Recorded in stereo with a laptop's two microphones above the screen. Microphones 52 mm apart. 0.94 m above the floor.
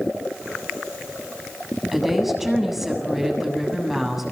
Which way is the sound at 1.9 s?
5° right (ahead or behind).